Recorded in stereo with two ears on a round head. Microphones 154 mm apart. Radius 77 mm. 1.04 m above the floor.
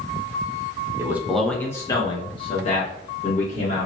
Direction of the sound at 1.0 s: 15° right (ahead or behind).